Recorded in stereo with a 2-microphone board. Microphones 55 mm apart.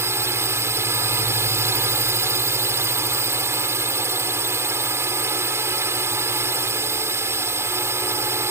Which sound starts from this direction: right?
A drone, at 0.0 s.